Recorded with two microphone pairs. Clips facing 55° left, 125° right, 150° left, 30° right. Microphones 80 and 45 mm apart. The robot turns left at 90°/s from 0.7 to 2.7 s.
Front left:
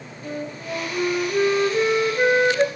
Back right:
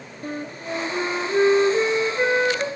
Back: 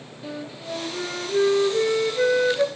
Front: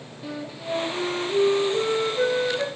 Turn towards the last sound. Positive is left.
turn(degrees=70)